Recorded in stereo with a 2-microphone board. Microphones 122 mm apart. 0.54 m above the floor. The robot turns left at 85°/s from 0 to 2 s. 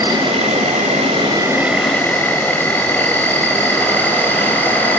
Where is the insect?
30° right, 1.7 m; by 5.0 s 160° left, 1.7 m.